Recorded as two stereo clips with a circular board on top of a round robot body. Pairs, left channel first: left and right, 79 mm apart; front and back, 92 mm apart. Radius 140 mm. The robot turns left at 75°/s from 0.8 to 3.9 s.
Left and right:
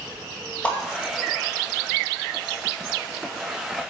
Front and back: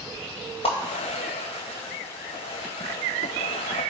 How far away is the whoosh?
About 1.8 m.